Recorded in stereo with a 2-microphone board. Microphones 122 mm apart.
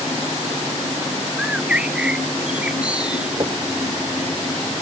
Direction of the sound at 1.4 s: 10° right (ahead or behind).